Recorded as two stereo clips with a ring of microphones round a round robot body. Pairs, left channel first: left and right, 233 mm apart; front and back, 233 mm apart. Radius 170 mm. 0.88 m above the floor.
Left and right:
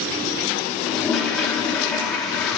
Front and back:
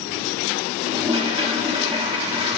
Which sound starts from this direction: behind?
A toilet flushing, at 0.9 s.